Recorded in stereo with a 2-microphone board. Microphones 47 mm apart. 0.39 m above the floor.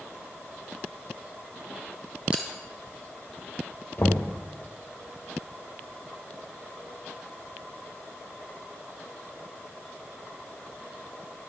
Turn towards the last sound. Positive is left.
turn(degrees=45)  # may be behind; listen again after turning